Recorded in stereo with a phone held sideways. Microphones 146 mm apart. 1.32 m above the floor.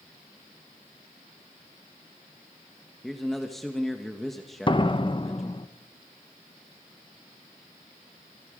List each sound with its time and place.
3.0 s a man speaking: centre (ahead or behind), 1.4 m
4.7 s a door slam: 35° left (ahead or behind), 0.9 m